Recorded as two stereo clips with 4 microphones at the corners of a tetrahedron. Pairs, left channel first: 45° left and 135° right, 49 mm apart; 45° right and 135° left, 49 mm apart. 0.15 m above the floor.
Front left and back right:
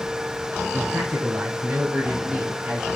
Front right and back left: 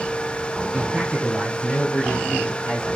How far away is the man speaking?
About 2.5 m.